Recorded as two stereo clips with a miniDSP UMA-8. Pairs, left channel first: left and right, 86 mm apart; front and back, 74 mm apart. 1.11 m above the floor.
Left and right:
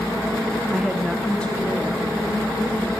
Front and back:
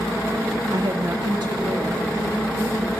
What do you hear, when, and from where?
0.7 s a woman speaking: 165° right, 0.8 m; by 2.9 s 155° left, 3 m